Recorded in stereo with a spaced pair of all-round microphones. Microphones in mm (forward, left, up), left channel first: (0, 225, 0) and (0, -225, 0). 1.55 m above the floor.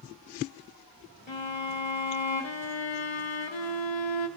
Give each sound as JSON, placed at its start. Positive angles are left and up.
{"t": 1.3, "sound": "a violin", "side_deg": 75, "distance_m": 0.8}